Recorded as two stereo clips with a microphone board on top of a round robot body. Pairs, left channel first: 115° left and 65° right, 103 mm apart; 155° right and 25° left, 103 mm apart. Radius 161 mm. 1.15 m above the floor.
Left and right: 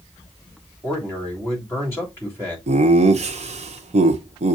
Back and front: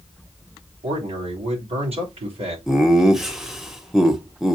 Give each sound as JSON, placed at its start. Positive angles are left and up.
{"t": 0.8, "sound": "a man speaking", "azimuth_deg": 45, "distance_m": 3.0}
{"t": 2.7, "sound": "laughter", "azimuth_deg": -65, "distance_m": 0.8}